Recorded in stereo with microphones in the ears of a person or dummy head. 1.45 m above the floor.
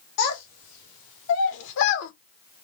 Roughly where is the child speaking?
Left.